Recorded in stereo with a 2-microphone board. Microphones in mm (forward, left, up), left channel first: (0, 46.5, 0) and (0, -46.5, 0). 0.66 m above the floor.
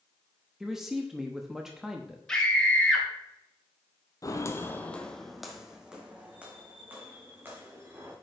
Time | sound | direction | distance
0.6 | a man speaking | 5° right (ahead or behind) | 0.8 m
2.3 | a scream | 10° left (ahead or behind) | 2.5 m
4.2 | footsteps | 40° left (ahead or behind) | 0.8 m